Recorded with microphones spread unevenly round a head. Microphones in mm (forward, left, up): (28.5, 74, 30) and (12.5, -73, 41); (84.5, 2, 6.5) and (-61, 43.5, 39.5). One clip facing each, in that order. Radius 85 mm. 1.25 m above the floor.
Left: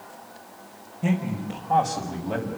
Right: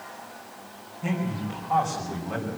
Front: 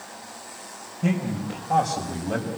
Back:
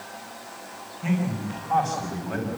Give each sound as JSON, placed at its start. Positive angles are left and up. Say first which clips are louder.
{"t": 1.0, "sound": "a man speaking", "louder": "left 3 dB, front 1 dB", "azimuth_deg": 25, "distance_m": 6.0}